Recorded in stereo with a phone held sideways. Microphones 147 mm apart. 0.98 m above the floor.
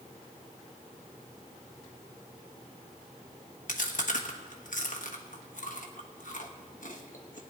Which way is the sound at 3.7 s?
65° left (ahead or behind).